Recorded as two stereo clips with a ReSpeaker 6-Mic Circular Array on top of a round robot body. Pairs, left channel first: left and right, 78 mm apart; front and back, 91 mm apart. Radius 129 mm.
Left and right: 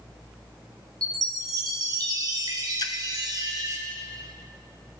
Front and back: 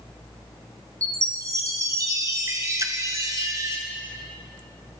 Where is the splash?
125° left, 1.5 m.